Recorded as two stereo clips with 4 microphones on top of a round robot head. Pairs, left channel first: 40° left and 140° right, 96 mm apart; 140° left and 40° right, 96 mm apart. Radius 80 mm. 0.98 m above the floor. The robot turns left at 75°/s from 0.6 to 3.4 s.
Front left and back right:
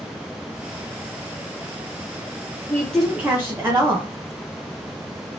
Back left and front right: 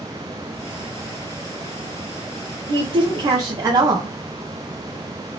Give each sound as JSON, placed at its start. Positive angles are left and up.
{"t": 2.7, "sound": "a woman speaking", "azimuth_deg": -25, "distance_m": 0.8}